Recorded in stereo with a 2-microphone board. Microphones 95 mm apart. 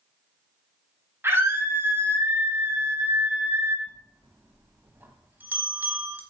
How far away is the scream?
About 1.4 m.